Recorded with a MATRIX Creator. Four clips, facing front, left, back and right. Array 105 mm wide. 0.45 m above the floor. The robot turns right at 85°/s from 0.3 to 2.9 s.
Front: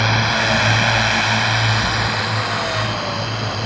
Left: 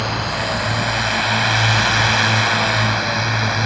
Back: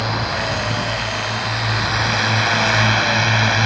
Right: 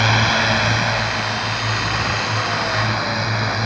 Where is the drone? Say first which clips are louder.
Right 4 dB, front 3 dB; 50° right; by 3.7 s 170° left.